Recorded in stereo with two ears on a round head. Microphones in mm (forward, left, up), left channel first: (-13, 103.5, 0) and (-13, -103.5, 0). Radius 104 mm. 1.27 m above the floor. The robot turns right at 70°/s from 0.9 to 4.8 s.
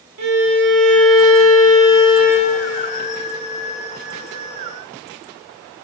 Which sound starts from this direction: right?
A violin, at 0.2 s.